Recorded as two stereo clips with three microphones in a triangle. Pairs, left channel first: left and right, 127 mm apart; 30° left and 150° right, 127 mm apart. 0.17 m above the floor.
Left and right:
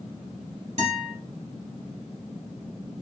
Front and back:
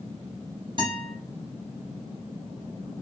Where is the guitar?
105° right, 2 m.